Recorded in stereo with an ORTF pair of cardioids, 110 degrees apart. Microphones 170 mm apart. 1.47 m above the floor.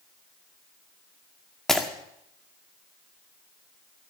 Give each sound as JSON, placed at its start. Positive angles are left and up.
{"t": 1.7, "sound": "breaking glass", "azimuth_deg": 5, "distance_m": 2.0}